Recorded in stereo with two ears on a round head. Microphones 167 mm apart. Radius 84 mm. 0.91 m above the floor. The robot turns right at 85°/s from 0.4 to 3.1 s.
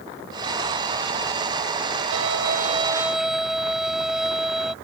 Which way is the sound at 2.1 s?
85° right.